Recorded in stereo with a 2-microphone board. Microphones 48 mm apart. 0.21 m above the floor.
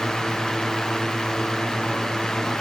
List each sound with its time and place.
Only background noise.